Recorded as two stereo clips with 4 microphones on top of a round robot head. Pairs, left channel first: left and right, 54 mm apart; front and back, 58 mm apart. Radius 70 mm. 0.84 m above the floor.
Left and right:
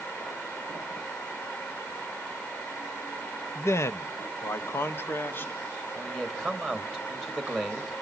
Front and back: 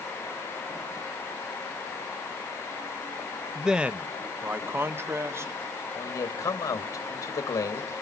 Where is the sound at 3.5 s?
95° left, 0.6 m; by 5.5 s 140° left, 1.5 m.